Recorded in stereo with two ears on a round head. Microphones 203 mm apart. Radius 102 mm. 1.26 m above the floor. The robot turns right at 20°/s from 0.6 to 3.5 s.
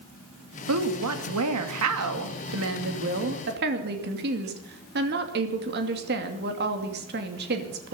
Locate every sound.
0.7 s a woman speaking: 105° right, 2.5 m; by 7.9 s 45° right, 2.5 m